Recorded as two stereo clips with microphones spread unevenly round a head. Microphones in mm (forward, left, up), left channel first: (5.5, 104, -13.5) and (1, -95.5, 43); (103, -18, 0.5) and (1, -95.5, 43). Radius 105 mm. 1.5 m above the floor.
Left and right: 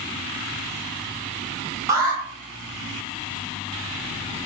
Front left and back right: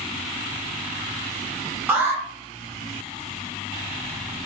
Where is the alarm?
120° right, 0.8 m.